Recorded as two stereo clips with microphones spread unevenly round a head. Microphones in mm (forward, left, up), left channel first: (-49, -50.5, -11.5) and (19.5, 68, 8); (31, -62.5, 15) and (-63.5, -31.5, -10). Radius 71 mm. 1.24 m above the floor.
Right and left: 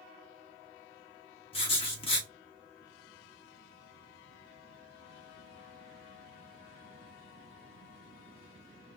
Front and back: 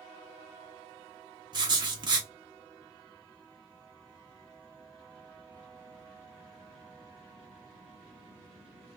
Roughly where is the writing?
Behind.